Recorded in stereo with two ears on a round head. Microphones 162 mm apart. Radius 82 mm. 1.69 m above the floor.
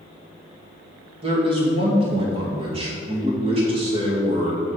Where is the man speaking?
30° right (ahead or behind), 2.5 m.